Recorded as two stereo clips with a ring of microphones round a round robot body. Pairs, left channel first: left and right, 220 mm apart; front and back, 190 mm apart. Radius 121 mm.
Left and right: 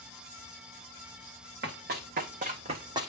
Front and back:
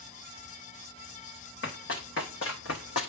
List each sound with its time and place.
1.6 s running footsteps: 45° right, 2 m; by 3.1 s 15° right, 1.0 m